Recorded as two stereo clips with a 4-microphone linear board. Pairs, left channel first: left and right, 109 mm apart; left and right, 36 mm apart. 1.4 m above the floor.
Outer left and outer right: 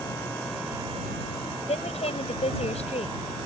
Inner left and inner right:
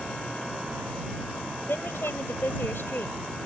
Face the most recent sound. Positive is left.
turn(degrees=80)